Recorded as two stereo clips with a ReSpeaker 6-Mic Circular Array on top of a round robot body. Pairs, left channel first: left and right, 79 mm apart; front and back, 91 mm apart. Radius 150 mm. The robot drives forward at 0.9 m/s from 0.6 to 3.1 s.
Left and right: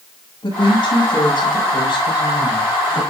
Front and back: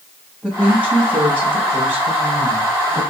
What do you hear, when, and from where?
0.4 s a woman speaking: 100° left, 7.5 m; by 3.0 s 115° left, 8.5 m